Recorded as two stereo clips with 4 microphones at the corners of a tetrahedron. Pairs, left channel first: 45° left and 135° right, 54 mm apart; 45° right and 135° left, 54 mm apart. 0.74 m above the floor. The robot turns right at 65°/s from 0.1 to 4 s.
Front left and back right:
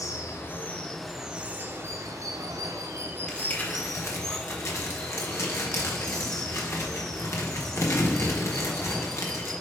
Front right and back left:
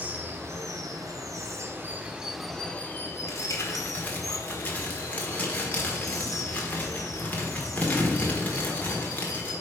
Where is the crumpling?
30° right, 1.6 m; by 9.5 s 15° left, 1.6 m.